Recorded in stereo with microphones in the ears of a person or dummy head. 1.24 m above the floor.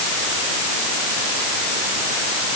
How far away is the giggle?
No giggle in this recording.